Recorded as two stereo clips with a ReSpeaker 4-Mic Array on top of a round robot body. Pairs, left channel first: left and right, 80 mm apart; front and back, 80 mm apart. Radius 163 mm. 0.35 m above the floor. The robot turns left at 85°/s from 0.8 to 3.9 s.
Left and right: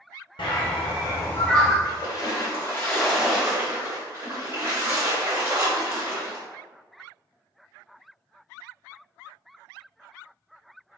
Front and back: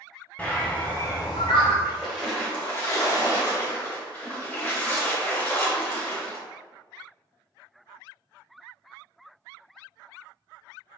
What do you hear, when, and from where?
0.4 s a bird: 75° left, 0.5 m; by 1.7 s 5° right, 0.5 m
1.8 s a splash: 120° left, 1.7 m; by 6.4 s 55° right, 1.7 m